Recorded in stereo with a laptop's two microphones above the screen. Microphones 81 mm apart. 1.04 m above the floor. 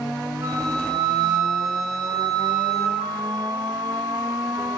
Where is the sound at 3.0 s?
65° right (ahead or behind), 3.5 m.